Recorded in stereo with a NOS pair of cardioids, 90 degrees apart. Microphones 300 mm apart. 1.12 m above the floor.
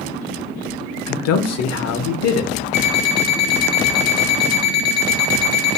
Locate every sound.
1.1 s a man speaking: 60° left, 0.6 m
2.7 s an alarm clock: 60° left, 1.0 m